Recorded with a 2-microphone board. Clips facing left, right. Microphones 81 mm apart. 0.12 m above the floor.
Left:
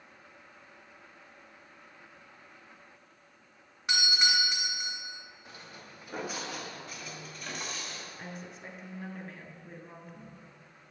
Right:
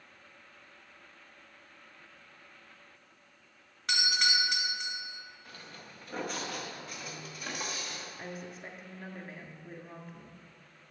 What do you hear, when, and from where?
3.9 s a doorbell: 15° left (ahead or behind), 1.9 m
5.5 s footsteps: 20° left (ahead or behind), 1.8 m; by 8.1 s 10° right (ahead or behind), 2.5 m
8.2 s a woman speaking: 5° right (ahead or behind), 1.2 m